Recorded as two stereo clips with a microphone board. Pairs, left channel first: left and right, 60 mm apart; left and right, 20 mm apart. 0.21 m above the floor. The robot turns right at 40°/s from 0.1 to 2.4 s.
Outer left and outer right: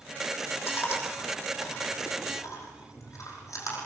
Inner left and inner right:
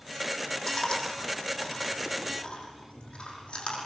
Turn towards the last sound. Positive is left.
turn(degrees=70)  # may be behind; listen again after turning